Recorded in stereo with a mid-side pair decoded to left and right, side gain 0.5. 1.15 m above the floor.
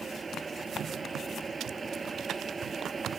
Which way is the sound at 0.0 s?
25° right.